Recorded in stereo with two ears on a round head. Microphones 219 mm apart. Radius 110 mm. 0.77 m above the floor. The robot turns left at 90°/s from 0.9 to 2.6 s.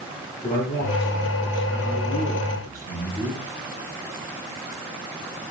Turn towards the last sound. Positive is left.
turn(degrees=15)